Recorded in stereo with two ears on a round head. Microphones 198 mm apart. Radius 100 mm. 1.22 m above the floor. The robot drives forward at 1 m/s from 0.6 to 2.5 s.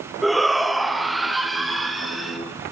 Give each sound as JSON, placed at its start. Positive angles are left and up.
{"t": 0.2, "sound": "a shout", "side_deg": 0, "distance_m": 0.9}